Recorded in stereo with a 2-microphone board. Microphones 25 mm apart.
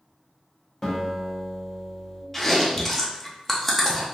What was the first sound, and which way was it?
A guitar, 20° left (ahead or behind).